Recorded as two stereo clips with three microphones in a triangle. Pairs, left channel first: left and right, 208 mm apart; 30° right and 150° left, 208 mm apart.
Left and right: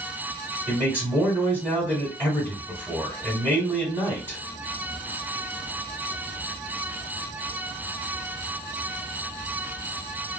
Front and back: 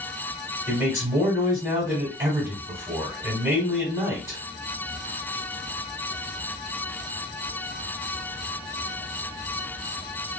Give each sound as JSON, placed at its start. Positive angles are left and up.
{"t": 0.7, "sound": "a man speaking", "azimuth_deg": -155, "distance_m": 1.4}